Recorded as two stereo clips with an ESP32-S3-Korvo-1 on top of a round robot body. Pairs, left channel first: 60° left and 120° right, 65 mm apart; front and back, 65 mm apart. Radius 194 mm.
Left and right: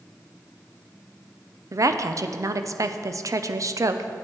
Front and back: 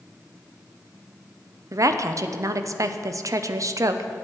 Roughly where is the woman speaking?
Behind right.